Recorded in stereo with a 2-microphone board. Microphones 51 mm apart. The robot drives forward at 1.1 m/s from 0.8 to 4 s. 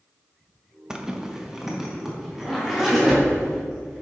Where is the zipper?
15° right (ahead or behind), 0.8 m; by 4.0 s 5° right (ahead or behind), 3.5 m.